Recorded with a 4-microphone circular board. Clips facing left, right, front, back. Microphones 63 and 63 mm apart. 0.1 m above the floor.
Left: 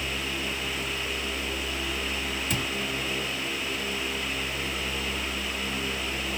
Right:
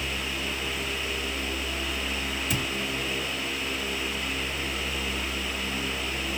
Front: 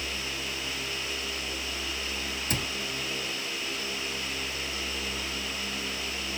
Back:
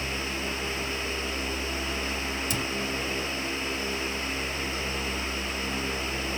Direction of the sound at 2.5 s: Straight ahead.